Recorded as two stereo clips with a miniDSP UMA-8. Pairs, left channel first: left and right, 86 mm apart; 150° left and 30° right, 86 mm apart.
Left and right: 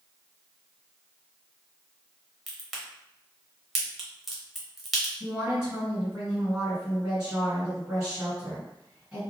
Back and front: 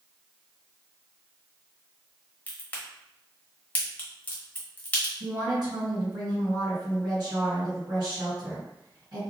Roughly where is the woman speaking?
Ahead.